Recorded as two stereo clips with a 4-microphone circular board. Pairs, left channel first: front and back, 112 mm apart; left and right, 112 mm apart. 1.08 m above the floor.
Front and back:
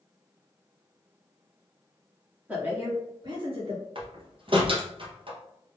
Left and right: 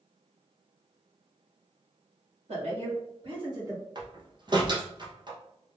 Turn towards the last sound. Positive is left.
turn(degrees=-140)